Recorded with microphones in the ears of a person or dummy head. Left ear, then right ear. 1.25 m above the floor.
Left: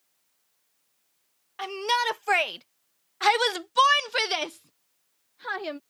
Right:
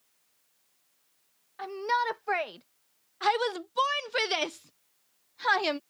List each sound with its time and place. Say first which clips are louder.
1.6 s a shout: left 3 dB; 60° left (ahead or behind); by 5.8 s 35° right (ahead or behind)